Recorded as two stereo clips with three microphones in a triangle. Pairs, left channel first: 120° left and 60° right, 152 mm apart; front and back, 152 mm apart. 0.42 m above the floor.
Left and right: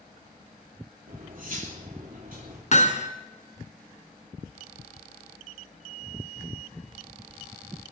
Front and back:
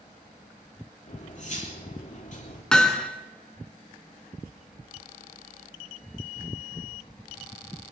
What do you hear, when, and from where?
1.1 s cutlery clinking: 35° right, 6 m
2.7 s hammering: 85° left, 2 m